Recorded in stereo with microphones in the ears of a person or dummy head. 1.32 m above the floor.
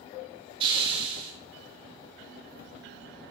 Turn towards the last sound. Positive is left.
turn(degrees=-30)  # may be behind; listen again after turning